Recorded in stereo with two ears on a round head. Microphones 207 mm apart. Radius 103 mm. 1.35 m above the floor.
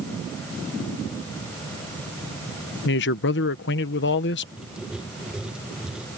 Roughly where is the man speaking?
Left.